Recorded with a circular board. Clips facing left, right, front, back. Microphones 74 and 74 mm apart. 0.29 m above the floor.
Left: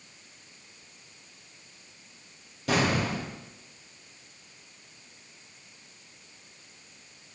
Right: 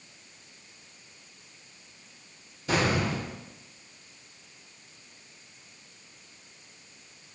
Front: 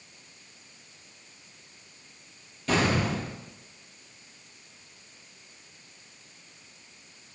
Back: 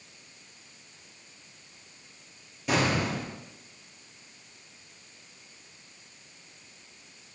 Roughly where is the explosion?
Left.